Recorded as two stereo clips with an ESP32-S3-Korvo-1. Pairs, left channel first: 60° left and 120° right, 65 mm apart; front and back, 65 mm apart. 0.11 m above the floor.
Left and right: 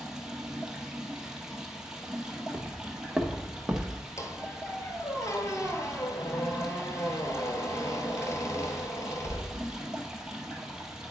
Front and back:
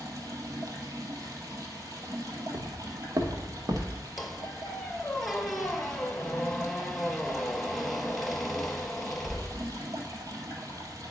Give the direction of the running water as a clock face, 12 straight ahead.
7 o'clock.